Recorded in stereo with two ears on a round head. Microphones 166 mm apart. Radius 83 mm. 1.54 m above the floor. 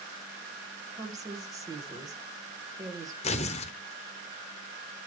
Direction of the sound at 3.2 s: 35° left (ahead or behind).